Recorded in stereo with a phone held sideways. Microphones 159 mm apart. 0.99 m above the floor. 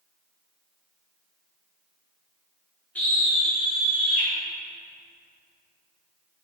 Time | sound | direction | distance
3.0 | a scream | 10° left (ahead or behind) | 0.8 m